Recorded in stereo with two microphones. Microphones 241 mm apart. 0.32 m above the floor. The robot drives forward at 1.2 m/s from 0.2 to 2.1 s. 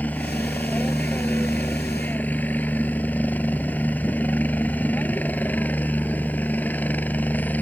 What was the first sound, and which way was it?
A helicopter, 5° left (ahead or behind).